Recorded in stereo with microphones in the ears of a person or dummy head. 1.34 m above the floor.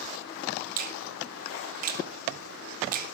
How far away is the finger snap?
About 2 m.